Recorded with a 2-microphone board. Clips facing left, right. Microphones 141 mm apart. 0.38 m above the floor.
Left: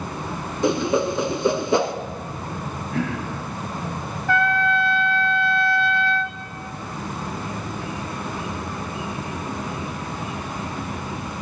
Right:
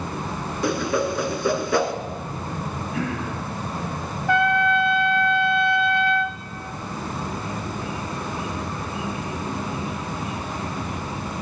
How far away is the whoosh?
About 0.9 m.